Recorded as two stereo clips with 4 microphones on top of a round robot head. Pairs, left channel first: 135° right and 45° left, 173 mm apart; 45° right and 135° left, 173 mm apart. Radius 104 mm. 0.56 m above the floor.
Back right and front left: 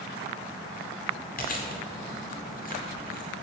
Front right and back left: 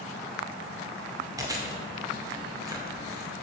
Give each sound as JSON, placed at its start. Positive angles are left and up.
{"t": 1.4, "sound": "chewing", "azimuth_deg": -160, "distance_m": 2.0}